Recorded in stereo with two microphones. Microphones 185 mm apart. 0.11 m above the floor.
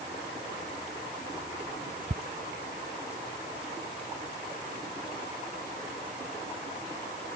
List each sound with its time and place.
2.1 s ticking: 60° right (ahead or behind)